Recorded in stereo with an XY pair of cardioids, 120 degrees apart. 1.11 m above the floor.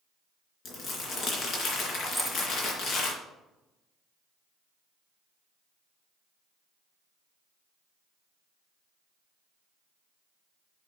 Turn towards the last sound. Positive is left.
turn(degrees=-5)